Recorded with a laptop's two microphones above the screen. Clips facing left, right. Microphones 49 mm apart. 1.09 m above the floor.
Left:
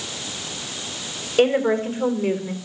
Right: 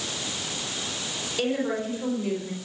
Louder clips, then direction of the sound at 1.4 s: Left 9 dB; 50° left (ahead or behind).